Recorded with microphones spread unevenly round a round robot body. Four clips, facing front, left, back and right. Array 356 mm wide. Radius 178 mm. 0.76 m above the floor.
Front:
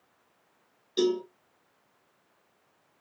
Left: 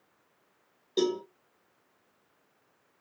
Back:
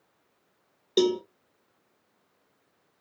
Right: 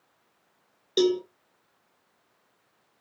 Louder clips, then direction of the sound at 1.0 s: Right 5 dB, back 2 dB; 155° right.